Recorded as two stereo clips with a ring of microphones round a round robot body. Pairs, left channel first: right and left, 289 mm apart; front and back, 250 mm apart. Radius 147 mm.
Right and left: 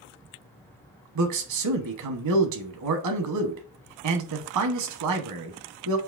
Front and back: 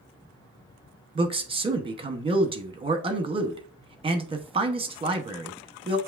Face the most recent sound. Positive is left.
turn(degrees=110)